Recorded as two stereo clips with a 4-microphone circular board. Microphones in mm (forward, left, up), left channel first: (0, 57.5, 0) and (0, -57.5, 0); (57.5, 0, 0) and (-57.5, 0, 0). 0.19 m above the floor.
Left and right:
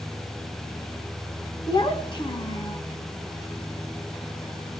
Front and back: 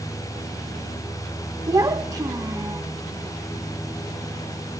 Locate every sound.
1.7 s a child speaking: 130° left, 1.9 m